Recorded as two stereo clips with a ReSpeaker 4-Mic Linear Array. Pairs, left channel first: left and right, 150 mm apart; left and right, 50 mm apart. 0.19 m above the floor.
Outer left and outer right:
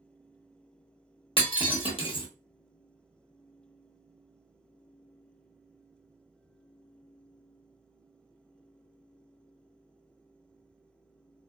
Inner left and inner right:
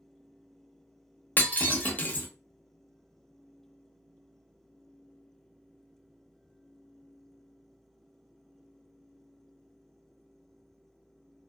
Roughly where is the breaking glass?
Left.